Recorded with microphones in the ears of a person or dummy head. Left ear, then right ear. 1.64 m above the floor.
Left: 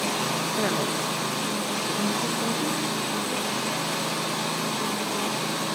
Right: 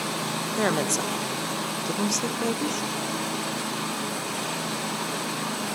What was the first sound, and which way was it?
A woman speaking, 90° right.